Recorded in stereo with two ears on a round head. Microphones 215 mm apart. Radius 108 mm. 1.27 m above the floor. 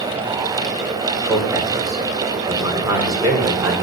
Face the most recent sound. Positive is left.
turn(degrees=-15)  # may be behind; listen again after turning